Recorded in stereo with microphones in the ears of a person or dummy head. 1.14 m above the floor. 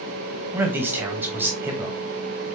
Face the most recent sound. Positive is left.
turn(degrees=-10)  # may be behind; listen again after turning